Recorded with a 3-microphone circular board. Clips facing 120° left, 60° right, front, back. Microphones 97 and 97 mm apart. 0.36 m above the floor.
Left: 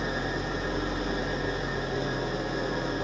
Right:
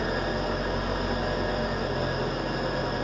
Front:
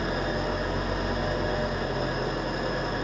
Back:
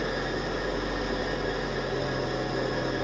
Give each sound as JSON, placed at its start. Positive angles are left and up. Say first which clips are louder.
{"t": 0.0, "sound": "an engine running", "louder": "right 3 dB, front 2 dB", "azimuth_deg": -35, "distance_m": 7.5}